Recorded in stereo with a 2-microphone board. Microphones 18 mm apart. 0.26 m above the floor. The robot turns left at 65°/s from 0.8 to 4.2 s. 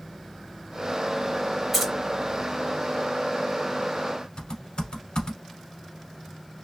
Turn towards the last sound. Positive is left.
turn(degrees=60)  # may be behind; listen again after turning